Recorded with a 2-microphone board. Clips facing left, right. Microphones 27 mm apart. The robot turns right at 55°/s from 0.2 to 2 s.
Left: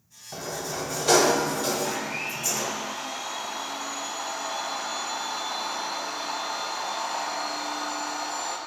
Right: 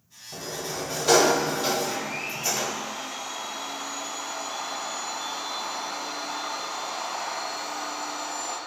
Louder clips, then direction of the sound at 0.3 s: Left 1 dB; 140° left.